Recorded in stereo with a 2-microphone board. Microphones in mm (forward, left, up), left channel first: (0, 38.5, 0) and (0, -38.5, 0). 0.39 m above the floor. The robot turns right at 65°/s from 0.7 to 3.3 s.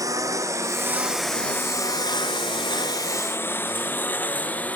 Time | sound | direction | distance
0.0 | a lawn mower | 45° right (ahead or behind) | ?